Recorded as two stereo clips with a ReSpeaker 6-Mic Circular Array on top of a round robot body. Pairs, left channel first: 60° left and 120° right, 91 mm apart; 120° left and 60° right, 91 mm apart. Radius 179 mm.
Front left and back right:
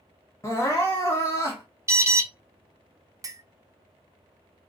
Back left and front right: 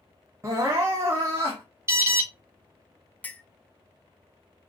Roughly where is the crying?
Ahead.